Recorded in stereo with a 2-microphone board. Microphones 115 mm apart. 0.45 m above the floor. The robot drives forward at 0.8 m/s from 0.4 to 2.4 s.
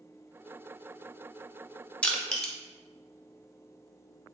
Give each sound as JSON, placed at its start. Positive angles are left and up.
{"t": 2.0, "sound": "crushing", "side_deg": 10, "distance_m": 0.6}